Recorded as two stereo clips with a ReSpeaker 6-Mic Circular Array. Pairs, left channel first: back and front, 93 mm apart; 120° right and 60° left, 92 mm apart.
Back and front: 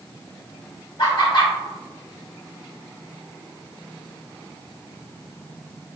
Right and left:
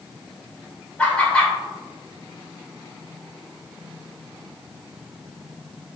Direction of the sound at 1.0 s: 165° left.